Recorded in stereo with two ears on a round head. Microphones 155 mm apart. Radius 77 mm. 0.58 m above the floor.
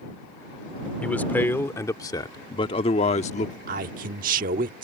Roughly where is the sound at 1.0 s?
Centre.